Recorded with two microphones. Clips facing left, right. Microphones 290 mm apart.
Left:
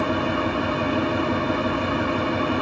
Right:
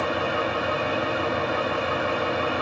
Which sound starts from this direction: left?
An engine running, at 0.0 s.